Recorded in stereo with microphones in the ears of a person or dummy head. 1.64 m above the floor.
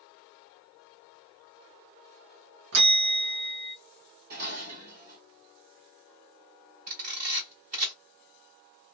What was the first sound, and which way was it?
A bell, 75° right (ahead or behind).